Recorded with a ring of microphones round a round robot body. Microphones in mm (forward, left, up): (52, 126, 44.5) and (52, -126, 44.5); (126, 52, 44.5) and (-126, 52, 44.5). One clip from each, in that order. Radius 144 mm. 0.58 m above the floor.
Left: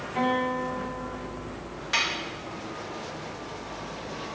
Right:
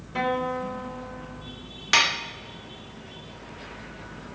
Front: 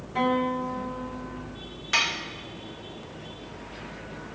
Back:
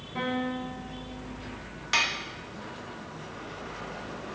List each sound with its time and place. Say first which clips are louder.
0.1 s a guitar: even, front 6 dB; 80° right, 3 m
1.9 s dishes clattering: right 6 dB, front 1 dB; 105° right, 0.6 m